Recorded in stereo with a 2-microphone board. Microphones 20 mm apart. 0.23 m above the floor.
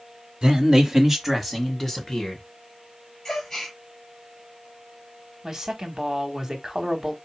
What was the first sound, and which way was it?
A man speaking, 40° right (ahead or behind).